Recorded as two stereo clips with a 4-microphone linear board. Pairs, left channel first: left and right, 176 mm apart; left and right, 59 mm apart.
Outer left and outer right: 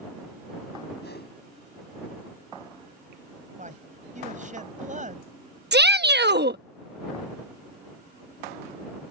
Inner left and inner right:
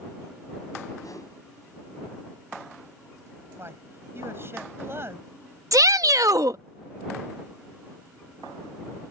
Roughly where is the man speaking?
Right.